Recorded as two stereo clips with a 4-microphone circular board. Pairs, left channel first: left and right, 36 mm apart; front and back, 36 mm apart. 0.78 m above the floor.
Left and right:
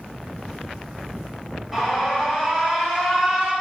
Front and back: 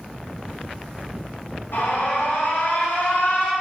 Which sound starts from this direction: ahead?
An alarm, at 1.7 s.